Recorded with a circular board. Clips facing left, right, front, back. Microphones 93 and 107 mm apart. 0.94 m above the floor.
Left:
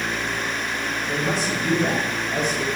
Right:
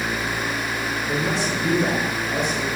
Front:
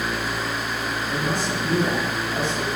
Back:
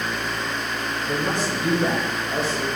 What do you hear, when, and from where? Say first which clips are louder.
1.1 s a man speaking: even, back 2 dB; 160° right, 4 m; by 2.7 s 150° right, 5 m